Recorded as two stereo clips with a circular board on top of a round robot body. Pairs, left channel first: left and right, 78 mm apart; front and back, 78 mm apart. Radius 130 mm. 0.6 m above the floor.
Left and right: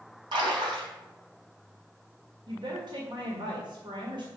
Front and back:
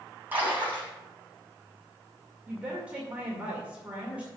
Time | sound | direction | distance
0.3 | a splash | 110° right | 4 m
2.5 | a woman speaking | 105° right | 2 m